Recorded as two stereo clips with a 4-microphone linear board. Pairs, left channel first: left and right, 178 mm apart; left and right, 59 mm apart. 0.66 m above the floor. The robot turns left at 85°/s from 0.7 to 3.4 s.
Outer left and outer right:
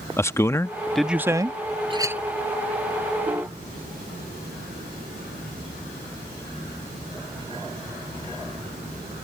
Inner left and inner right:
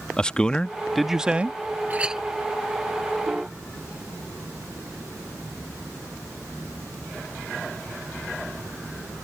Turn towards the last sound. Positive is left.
turn(degrees=-10)  # may be behind; listen again after turning